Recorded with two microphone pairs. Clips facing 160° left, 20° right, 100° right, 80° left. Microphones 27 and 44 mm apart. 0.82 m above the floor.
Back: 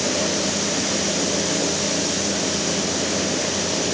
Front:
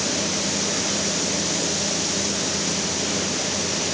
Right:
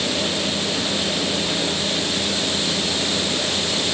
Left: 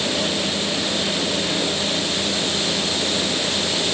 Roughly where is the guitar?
No guitar in this recording.